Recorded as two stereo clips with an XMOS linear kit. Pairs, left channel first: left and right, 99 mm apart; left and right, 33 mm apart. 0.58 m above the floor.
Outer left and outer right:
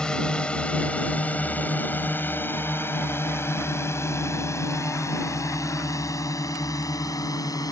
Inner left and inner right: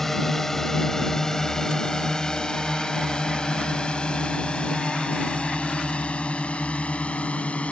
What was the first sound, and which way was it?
A drone, 10° left (ahead or behind).